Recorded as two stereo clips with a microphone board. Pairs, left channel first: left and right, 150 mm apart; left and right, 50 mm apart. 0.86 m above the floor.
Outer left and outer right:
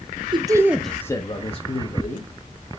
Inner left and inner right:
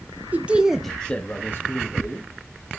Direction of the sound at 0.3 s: 30° right (ahead or behind).